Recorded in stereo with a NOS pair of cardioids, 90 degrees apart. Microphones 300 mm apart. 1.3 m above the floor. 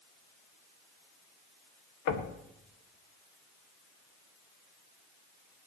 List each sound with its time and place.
2.1 s knocking: 70° left, 2.0 m